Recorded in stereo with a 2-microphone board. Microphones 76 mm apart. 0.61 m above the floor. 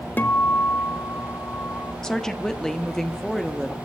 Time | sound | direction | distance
0.2 | a guitar | 25° left (ahead or behind) | 0.9 m
2.0 | a woman speaking | 5° left (ahead or behind) | 1.1 m